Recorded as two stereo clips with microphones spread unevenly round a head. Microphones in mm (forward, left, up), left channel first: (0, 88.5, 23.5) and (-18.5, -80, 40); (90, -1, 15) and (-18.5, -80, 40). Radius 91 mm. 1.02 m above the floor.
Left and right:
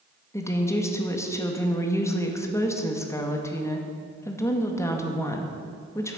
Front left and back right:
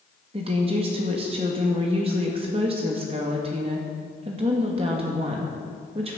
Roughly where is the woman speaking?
Behind left.